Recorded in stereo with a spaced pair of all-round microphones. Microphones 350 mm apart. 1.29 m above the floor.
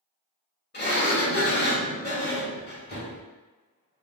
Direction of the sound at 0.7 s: 30° left (ahead or behind).